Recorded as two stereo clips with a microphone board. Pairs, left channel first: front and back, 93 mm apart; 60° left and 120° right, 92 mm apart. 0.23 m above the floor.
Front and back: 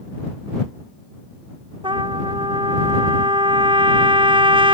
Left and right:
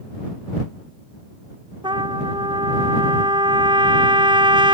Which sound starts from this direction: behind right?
A trumpet, at 1.8 s.